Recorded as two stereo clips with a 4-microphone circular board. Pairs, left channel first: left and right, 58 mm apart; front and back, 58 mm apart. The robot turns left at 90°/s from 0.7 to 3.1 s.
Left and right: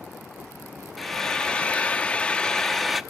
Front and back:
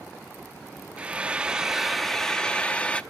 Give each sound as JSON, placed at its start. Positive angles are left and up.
{"t": 1.0, "sound": "frying", "azimuth_deg": 175, "distance_m": 0.5}